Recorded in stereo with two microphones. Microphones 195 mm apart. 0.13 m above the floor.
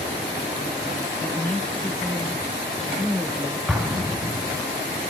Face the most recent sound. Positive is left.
turn(degrees=-5)  # may be behind; listen again after turning